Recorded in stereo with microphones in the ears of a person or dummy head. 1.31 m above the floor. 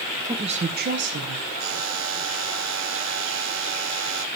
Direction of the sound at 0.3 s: 15° right (ahead or behind).